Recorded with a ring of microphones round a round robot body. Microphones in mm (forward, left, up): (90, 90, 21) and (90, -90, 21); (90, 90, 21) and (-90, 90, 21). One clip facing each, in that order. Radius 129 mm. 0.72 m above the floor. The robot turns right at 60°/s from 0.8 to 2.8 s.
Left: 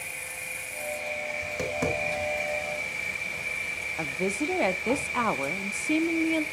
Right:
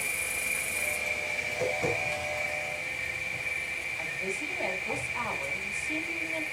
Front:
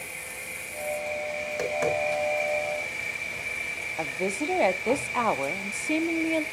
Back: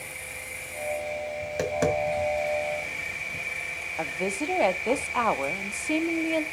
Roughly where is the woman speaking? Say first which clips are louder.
Left 9 dB, front 1 dB; left.